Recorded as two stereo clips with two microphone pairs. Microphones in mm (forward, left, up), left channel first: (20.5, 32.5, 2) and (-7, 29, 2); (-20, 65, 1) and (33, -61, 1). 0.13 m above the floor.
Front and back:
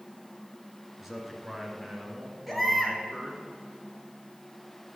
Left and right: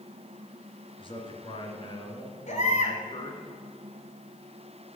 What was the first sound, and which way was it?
A man speaking, 105° left.